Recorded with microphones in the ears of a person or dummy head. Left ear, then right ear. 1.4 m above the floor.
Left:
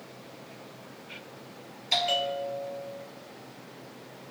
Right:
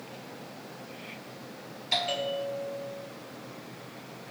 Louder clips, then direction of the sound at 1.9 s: Left 2 dB; 15° left (ahead or behind).